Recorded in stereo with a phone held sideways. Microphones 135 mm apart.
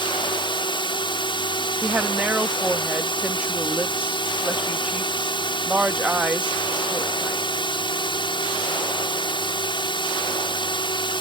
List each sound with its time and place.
0.0 s a drone: 40° left (ahead or behind)
1.8 s a woman speaking: 10° right (ahead or behind)